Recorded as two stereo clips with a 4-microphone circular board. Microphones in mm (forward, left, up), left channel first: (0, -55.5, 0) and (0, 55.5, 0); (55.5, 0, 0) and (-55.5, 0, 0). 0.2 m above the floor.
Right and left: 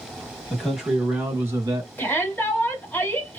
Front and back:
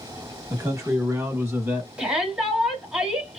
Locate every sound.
0.5 s a man speaking: 170° right, 1.0 m; by 1.9 s 125° left, 1.2 m
2.0 s a shout: 115° right, 1.3 m